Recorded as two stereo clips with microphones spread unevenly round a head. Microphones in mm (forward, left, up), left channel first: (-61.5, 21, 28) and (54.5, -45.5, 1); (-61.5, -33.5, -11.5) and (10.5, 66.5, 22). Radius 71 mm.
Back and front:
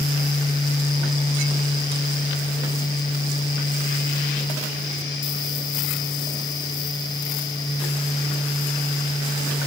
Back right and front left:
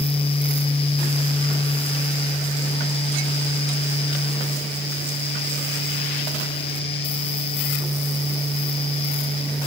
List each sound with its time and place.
Only background noise.